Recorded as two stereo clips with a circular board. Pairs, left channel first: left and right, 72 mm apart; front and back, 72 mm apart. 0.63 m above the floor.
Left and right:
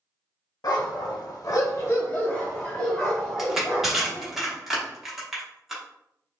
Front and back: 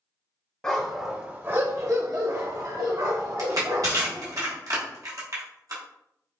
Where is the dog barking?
75° left, 0.8 m; by 4.4 s straight behind, 2.5 m.